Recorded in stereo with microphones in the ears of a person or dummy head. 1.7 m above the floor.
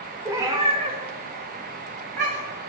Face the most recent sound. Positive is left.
turn(degrees=-40)  # may be behind; listen again after turning